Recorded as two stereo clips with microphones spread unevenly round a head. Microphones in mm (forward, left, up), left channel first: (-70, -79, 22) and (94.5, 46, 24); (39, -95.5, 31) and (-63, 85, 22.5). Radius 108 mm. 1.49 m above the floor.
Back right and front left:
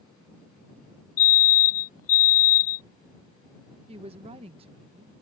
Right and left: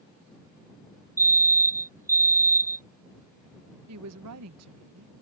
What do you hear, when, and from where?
1.2 s a fire alarm: 165° right
3.9 s a woman speaking: 100° left